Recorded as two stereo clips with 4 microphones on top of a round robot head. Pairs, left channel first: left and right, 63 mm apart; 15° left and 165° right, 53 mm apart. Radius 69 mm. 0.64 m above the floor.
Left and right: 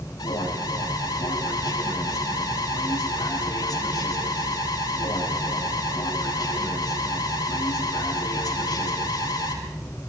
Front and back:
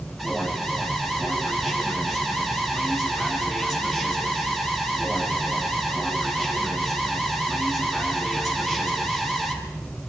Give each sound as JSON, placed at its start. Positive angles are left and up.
{"t": 0.2, "sound": "an alarm", "azimuth_deg": 105, "distance_m": 7.5}